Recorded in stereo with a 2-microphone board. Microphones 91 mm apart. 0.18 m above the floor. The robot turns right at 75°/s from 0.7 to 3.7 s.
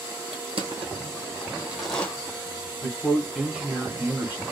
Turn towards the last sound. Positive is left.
turn(degrees=-150)